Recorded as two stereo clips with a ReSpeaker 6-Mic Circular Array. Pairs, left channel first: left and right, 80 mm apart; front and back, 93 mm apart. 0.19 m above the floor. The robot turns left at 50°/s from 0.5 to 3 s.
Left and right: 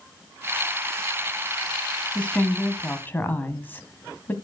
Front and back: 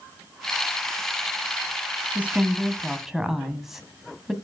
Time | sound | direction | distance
2.1 | a woman speaking | 145° left | 1.5 m